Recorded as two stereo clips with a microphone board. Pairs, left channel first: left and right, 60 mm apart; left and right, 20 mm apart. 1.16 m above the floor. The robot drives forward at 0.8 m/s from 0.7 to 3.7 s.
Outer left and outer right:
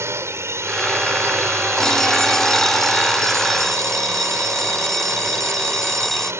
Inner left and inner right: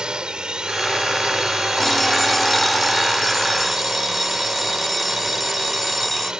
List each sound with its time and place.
0.0 s a drone: 45° right (ahead or behind)
1.8 s an alarm clock: 10° left (ahead or behind); by 6.3 s 5° left (ahead or behind)